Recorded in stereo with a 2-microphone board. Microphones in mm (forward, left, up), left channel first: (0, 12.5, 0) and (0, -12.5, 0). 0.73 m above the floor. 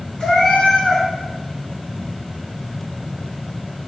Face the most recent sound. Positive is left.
turn(degrees=25)  # may be behind; listen again after turning